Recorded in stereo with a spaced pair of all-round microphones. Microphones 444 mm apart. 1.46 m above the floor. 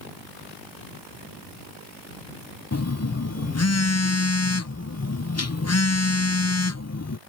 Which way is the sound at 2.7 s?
35° left (ahead or behind).